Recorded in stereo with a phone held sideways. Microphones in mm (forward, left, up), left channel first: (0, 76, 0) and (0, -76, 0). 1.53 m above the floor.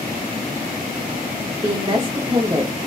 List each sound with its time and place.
1.6 s a woman speaking: 30° right (ahead or behind), 0.7 m